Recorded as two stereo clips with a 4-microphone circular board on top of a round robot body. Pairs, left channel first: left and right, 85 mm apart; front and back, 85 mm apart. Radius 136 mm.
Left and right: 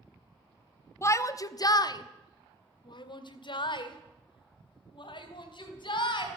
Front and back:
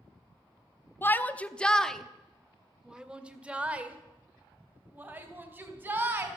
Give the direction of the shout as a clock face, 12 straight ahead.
10 o'clock.